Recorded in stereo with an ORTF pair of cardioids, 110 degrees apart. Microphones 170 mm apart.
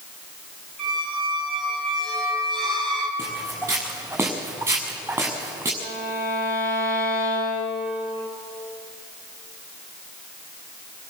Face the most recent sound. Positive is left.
turn(degrees=65)